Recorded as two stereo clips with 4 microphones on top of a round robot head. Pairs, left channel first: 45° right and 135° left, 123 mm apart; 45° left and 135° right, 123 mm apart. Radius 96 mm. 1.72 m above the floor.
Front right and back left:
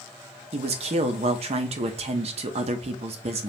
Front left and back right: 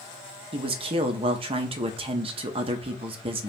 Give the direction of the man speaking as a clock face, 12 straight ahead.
6 o'clock.